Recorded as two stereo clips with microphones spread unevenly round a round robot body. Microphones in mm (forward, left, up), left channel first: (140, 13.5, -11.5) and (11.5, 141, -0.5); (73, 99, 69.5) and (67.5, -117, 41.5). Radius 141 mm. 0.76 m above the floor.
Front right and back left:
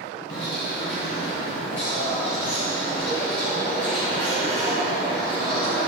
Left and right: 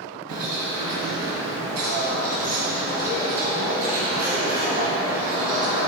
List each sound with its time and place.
0.3 s a bird: 110° right, 2.5 m